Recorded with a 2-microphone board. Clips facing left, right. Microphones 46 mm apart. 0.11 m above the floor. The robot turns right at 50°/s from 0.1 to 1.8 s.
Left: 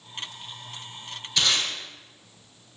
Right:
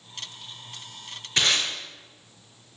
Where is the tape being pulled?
45° right (ahead or behind), 0.9 m; by 1.7 s 50° right (ahead or behind), 0.9 m.